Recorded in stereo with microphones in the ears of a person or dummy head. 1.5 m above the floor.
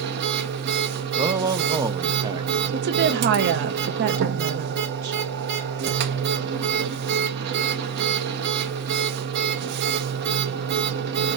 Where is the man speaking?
20° right (ahead or behind), 0.5 m.